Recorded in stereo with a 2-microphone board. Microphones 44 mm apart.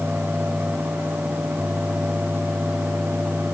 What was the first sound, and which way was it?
Only background noise.